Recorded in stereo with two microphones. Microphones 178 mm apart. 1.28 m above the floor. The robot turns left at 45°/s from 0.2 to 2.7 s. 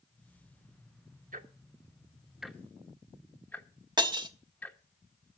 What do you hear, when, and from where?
1.3 s ticking: 50° right (ahead or behind), 1.1 m; by 4.8 s 10° left (ahead or behind), 1.1 m
4.0 s breaking glass: 25° right (ahead or behind), 1.0 m